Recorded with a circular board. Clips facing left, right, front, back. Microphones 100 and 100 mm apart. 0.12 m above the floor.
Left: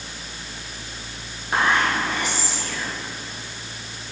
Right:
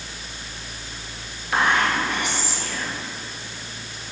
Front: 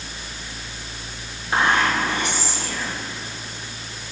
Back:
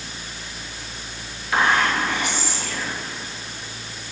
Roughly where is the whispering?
Ahead left.